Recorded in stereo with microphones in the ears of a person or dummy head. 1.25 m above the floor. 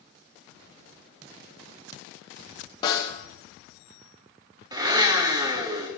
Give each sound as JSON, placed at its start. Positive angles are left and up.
{"t": 2.8, "sound": "a snare drum", "side_deg": 25, "distance_m": 2.5}
{"t": 4.7, "sound": "a blender", "side_deg": -20, "distance_m": 1.0}